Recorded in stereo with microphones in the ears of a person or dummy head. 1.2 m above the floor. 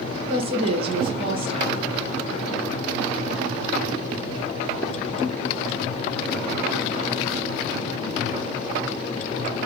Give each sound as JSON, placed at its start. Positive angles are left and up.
{"t": 0.3, "sound": "a woman speaking", "side_deg": -35, "distance_m": 0.9}